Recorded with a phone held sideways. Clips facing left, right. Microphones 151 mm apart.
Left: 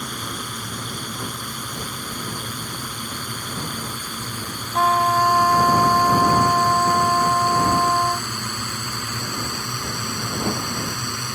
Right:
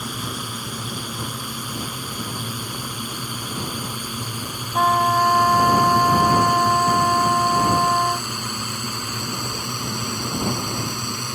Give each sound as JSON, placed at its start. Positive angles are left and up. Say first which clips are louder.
{"t": 0.0, "sound": "a drone", "louder": "right 1 dB", "side_deg": -5}
{"t": 4.7, "sound": "a trumpet", "louder": "even", "side_deg": 0}